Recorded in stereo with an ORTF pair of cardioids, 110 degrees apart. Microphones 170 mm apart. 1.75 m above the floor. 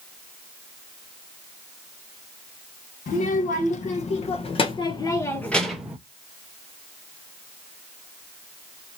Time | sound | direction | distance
3.1 | a child speaking | 55° left | 1.9 m